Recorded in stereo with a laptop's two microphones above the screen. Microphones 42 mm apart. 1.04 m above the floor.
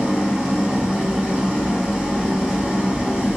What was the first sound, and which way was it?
An engine running, 20° right (ahead or behind).